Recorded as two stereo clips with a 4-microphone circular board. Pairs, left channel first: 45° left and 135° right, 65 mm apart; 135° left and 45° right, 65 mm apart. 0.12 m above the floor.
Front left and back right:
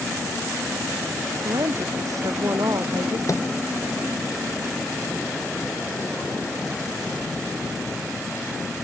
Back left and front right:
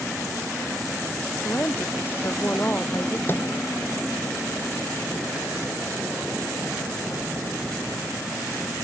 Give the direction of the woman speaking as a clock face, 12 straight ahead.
6 o'clock.